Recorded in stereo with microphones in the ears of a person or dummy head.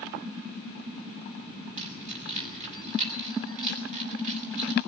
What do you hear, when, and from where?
1.8 s keys jangling: 40° right (ahead or behind), 6.5 m